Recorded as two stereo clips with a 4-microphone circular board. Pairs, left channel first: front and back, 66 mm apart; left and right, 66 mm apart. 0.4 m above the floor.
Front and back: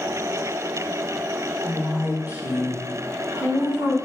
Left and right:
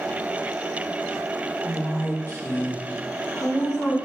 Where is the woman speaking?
100° left, 1.6 m; by 4.0 s 150° left, 4 m.